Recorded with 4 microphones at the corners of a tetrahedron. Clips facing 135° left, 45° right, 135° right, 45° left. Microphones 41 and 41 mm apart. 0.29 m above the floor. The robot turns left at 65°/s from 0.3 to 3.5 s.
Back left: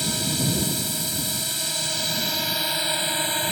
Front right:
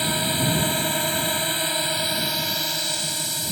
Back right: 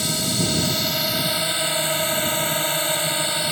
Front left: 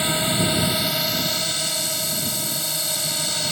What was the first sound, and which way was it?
A drone, straight ahead.